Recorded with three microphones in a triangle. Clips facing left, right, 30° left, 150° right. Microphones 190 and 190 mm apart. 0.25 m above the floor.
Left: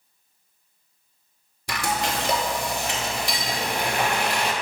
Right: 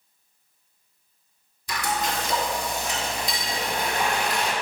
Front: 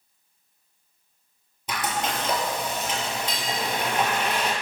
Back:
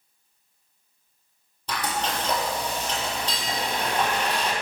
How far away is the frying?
About 0.7 m.